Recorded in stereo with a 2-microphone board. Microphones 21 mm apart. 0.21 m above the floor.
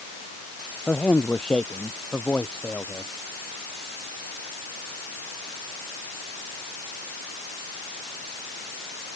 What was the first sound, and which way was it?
A man speaking, 45° left (ahead or behind).